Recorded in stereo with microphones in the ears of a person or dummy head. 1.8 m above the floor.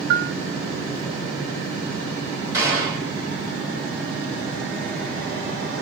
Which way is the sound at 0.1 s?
70° right (ahead or behind).